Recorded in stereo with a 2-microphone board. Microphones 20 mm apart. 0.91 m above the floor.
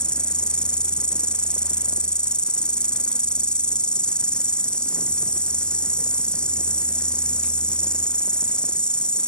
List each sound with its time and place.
0.0 s an insect: 45° left (ahead or behind)